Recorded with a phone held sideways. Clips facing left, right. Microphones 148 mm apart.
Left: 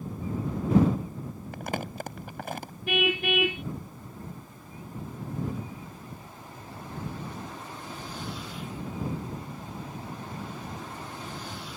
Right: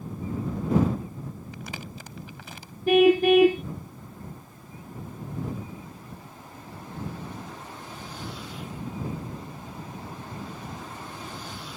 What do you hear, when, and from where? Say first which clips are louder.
1.5 s crumpling: left 6 dB; 55° left (ahead or behind)
2.9 s a car horn: right 11 dB; 40° right (ahead or behind)